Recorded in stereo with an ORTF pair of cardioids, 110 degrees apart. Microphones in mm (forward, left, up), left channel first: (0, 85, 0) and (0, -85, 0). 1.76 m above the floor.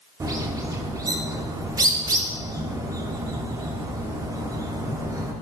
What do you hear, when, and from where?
0.2 s a bird: 20° right, 1.1 m